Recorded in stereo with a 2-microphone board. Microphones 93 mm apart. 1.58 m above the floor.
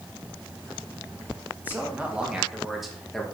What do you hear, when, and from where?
1.6 s a man speaking: 20° right (ahead or behind), 2 m; by 3.2 s 5° left (ahead or behind), 2 m